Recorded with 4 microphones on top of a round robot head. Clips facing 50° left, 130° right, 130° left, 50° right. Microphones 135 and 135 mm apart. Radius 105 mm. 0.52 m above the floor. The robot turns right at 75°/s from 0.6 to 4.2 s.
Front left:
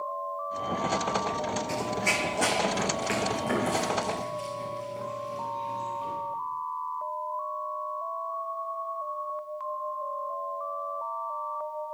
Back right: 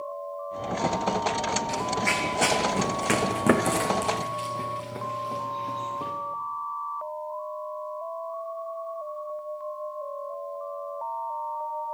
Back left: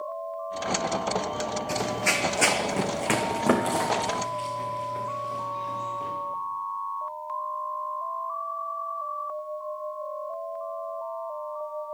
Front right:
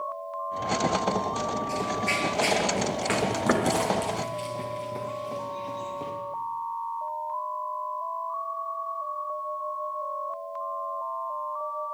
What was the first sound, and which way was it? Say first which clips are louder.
Running footsteps: back right 2 dB, back left 1 dB; 100° left.